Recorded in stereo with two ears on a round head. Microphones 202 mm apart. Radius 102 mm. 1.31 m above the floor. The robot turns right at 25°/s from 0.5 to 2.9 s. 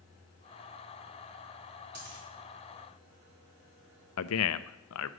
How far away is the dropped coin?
About 4.5 m.